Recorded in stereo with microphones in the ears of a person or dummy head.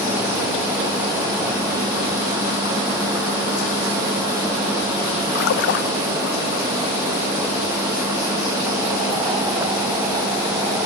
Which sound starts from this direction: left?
A splash, at 5.3 s.